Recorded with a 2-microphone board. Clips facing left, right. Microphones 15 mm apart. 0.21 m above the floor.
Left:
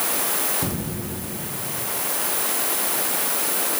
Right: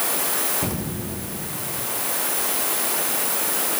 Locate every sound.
0.6 s an explosion: 15° right (ahead or behind), 3 m